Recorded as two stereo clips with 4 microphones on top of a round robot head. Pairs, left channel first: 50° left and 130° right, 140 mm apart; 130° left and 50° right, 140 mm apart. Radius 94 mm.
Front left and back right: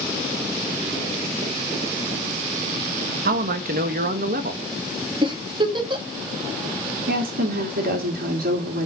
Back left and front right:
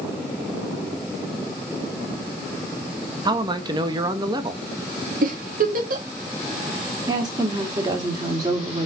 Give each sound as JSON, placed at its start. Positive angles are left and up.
{"t": 3.2, "sound": "a man speaking", "azimuth_deg": -110, "distance_m": 1.3}
{"t": 5.2, "sound": "a giggle", "azimuth_deg": -70, "distance_m": 2.5}
{"t": 7.1, "sound": "a woman speaking", "azimuth_deg": -115, "distance_m": 3.0}